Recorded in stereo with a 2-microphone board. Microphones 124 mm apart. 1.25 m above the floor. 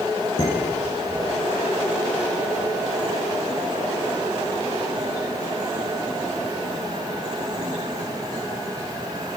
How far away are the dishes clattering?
About 9.5 m.